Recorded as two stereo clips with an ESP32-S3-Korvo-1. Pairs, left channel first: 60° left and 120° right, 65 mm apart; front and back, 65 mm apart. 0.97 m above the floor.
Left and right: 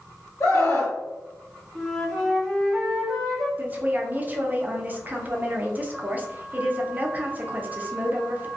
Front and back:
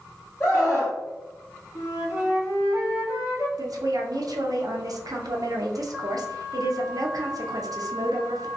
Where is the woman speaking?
Straight behind, 0.5 m.